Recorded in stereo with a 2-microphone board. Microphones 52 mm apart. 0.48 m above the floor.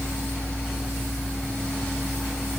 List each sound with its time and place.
Only background noise.